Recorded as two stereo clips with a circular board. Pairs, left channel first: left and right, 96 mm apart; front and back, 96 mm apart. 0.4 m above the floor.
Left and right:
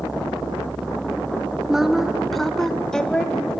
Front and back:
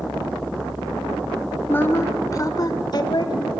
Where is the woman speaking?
15° right, 1.0 m; by 3.6 s 15° left, 1.7 m.